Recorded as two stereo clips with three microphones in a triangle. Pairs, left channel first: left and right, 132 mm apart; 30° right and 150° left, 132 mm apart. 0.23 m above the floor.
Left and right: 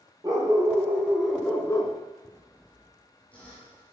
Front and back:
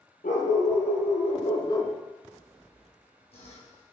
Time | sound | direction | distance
0.2 | a dog barking | 25° right | 3 m
2.3 | sawing | 10° left | 4.5 m